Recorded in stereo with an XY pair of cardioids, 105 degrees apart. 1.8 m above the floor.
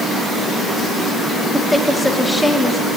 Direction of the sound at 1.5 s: 5° left.